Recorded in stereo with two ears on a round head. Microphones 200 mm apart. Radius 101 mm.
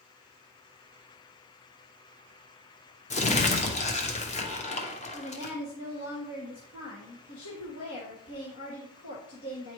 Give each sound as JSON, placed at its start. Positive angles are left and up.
{"t": 3.1, "sound": "crumpling", "side_deg": 30, "distance_m": 1.0}
{"t": 5.1, "sound": "a woman speaking", "side_deg": 65, "distance_m": 1.6}